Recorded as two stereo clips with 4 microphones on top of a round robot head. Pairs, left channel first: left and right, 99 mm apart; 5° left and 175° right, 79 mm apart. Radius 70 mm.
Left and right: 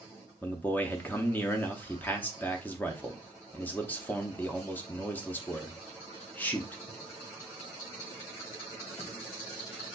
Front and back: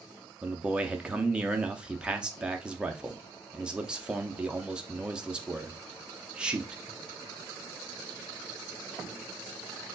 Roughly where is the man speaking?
Behind left.